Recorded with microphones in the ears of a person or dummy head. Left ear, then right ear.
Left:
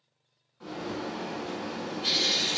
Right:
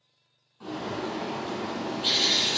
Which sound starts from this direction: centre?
A bird, at 0.6 s.